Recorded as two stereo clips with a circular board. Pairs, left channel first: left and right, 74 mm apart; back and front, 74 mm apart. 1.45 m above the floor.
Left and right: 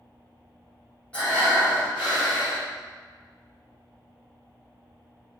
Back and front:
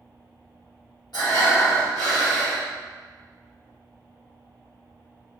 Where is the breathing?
160° left, 1.6 m.